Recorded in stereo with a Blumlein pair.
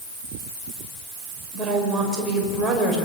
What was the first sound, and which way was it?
A woman speaking, 15° right.